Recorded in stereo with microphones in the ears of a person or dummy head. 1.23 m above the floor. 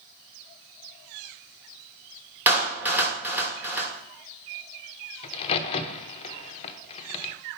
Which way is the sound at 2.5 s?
10° right (ahead or behind).